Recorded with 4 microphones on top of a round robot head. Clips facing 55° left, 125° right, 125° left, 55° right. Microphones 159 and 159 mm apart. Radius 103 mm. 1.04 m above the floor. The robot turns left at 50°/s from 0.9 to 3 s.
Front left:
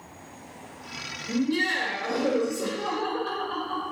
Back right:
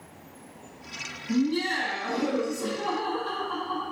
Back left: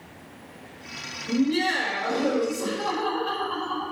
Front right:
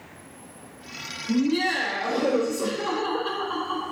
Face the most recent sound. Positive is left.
turn(degrees=0)